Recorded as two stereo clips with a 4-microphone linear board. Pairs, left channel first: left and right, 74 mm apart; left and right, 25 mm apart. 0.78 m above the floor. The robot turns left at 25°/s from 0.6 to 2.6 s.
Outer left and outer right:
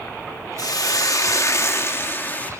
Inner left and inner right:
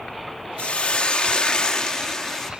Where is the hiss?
75° left, 1.0 m; by 2.5 s 25° left, 1.0 m.